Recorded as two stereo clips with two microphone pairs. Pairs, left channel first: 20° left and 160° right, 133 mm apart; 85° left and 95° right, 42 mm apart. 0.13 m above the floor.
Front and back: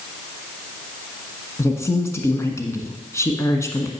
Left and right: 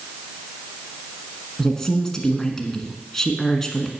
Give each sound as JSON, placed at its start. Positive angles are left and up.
{"t": 1.6, "sound": "a woman speaking", "azimuth_deg": 30, "distance_m": 1.1}